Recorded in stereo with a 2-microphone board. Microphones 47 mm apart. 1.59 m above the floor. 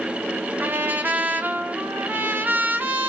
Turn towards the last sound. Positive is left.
turn(degrees=-40)  # may be behind; listen again after turning